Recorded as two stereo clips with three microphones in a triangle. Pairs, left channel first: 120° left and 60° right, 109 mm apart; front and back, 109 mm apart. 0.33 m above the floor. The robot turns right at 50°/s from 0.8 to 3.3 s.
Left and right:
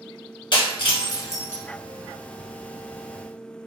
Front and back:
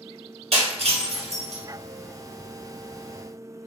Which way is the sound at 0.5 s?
160° left.